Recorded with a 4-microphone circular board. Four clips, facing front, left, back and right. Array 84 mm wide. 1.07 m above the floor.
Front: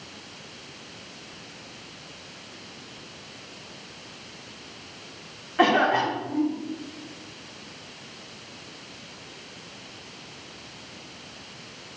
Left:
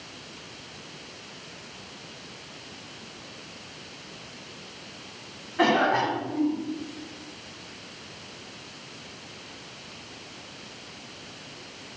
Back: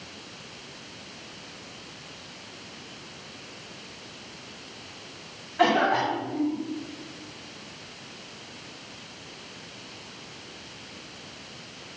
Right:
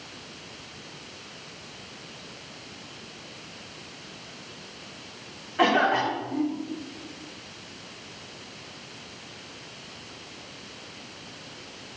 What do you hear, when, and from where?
5.6 s a cough: 5° right, 3 m